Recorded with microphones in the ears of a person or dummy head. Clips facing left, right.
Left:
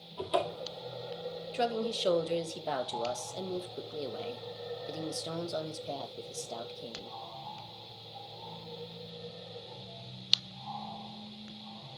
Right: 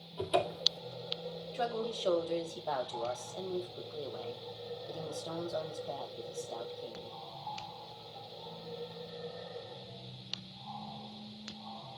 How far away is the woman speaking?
About 2.5 m.